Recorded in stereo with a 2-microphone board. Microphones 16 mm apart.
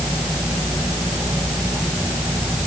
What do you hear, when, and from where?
Only background noise.